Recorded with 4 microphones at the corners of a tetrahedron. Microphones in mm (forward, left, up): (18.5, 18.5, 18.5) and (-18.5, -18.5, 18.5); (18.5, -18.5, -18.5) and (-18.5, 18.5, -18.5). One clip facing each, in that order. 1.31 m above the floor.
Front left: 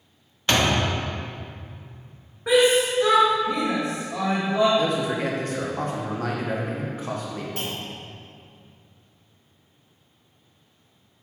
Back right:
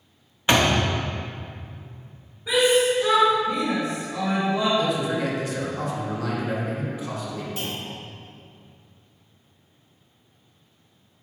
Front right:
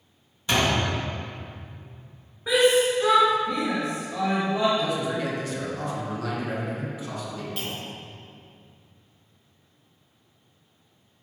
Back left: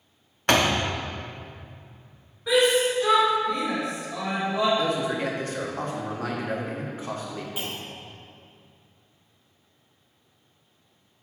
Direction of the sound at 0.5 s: 155° left.